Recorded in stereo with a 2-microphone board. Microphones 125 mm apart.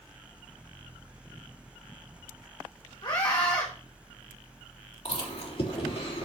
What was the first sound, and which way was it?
A scream, 35° left (ahead or behind).